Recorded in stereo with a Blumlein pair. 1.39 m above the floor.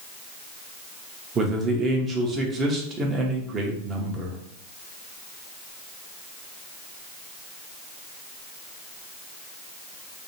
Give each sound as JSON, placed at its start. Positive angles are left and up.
{"t": 1.4, "sound": "a man speaking", "azimuth_deg": -25, "distance_m": 0.8}